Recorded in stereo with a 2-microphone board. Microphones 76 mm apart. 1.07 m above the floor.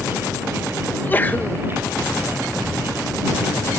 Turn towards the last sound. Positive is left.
turn(degrees=25)  # may be behind; listen again after turning